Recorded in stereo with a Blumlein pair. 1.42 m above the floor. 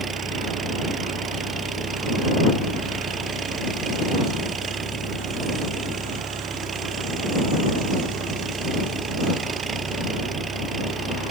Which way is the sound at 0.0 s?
15° right.